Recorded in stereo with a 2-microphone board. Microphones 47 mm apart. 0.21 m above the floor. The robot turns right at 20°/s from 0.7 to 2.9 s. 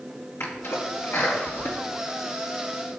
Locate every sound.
0.4 s a sneeze: 70° left (ahead or behind), 4 m; by 3.0 s 35° left (ahead or behind), 4 m